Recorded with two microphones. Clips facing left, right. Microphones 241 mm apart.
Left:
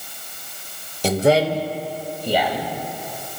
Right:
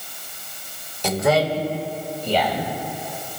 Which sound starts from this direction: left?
A man speaking, at 1.0 s.